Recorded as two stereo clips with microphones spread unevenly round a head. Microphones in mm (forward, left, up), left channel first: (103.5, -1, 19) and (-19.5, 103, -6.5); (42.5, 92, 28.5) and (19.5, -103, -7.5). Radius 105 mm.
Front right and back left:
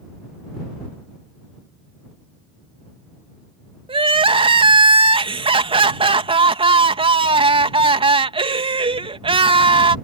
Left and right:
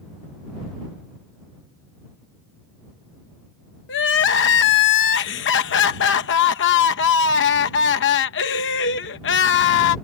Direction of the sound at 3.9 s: 80° left.